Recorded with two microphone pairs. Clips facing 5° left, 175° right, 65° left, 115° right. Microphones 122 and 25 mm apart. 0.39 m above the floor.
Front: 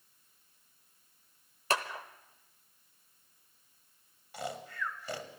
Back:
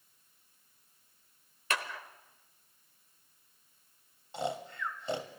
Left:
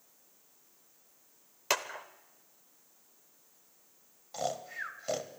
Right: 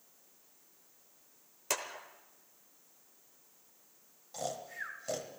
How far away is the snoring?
About 1.3 m.